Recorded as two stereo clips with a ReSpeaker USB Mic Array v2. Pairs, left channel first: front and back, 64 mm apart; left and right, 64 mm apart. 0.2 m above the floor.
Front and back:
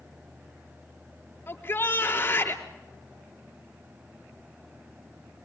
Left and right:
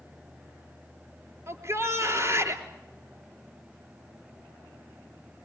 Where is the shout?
50° right, 3.5 m.